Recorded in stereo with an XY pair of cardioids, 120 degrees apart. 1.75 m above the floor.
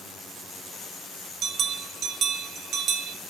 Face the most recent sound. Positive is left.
turn(degrees=-60)